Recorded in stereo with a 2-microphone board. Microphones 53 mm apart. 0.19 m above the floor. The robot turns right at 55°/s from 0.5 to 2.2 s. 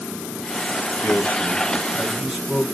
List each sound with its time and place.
1.0 s a man speaking: 120° left, 2 m; by 2.6 s 175° right, 2 m